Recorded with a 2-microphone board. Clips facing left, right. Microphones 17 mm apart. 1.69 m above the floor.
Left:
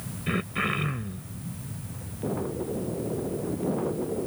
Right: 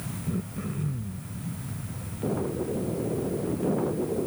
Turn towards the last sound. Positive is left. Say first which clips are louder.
# left 7 dB
turn(degrees=85)